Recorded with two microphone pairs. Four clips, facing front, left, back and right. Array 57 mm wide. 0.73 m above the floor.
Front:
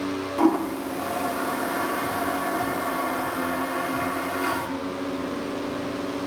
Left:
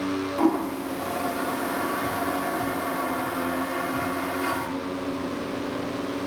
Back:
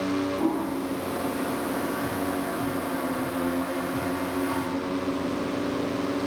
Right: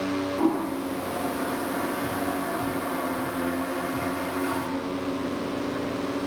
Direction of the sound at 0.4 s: 20° left.